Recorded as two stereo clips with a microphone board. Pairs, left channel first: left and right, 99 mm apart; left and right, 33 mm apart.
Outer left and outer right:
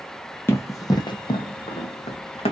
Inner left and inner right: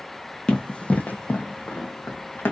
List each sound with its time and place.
0.5 s running footsteps: 20° left (ahead or behind), 0.8 m; by 2.5 s 70° left (ahead or behind), 1.0 m